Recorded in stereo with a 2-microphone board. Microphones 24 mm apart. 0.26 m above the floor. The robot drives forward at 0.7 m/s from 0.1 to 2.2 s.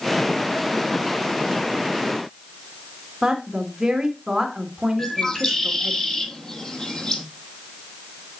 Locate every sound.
3.2 s a woman speaking: 20° right (ahead or behind), 2.5 m
5.0 s a bird: 30° left (ahead or behind), 1.4 m